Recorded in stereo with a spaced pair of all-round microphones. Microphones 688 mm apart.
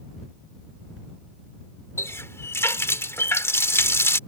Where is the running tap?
5° left (ahead or behind).